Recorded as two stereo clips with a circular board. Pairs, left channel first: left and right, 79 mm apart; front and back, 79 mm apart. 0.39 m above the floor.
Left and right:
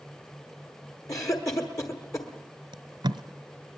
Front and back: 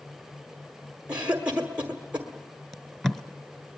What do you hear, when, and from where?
1.1 s a cough: 110° left, 1.4 m
2.7 s tape being pulled: 90° right, 0.9 m